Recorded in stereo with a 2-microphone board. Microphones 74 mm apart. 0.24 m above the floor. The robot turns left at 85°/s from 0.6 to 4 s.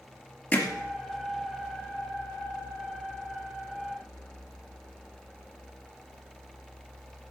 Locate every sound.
0.5 s hammering: 15° left (ahead or behind), 2.5 m; by 0.7 s 20° left (ahead or behind), 2.5 m